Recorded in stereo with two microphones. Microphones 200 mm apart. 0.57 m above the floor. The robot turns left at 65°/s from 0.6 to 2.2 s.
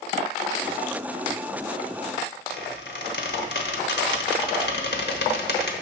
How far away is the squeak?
About 1.0 m.